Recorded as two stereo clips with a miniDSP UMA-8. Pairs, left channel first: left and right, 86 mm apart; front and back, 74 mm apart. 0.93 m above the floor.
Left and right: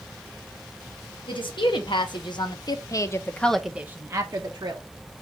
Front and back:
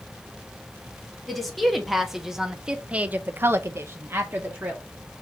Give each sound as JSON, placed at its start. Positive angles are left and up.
{"t": 1.3, "sound": "a woman speaking", "azimuth_deg": 90, "distance_m": 1.4}